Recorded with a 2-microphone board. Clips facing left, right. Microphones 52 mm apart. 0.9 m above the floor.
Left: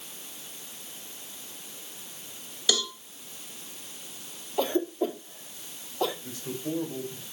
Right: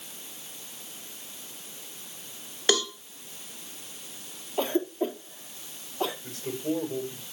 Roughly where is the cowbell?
Right.